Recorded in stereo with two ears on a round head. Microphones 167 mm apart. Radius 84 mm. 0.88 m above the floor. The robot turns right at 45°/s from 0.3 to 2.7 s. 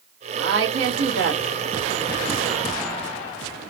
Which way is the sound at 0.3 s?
70° right (ahead or behind).